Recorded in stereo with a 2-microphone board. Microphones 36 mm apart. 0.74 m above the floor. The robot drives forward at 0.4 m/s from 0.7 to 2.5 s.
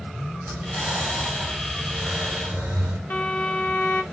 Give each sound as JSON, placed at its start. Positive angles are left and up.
{"t": 0.4, "sound": "breathing", "side_deg": -60, "distance_m": 1.5}
{"t": 3.1, "sound": "a violin", "side_deg": 55, "distance_m": 0.6}